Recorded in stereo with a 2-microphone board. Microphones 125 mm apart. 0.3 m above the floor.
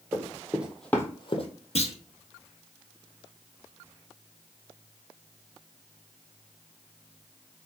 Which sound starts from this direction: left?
A clunk, at 1.8 s.